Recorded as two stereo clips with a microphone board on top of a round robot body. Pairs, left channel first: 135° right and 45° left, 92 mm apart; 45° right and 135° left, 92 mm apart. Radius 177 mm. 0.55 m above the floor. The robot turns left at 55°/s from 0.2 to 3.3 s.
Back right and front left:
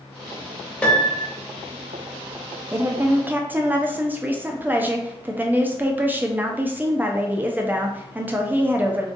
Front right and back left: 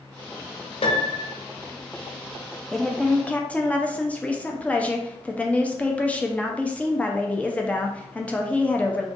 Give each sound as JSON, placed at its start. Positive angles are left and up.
{"t": 0.8, "sound": "a piano", "azimuth_deg": -60, "distance_m": 0.7}
{"t": 2.7, "sound": "a woman speaking", "azimuth_deg": 40, "distance_m": 0.7}